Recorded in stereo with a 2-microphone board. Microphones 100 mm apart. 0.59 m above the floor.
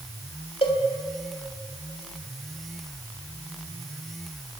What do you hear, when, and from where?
0.6 s a cowbell: 60° left (ahead or behind), 1.7 m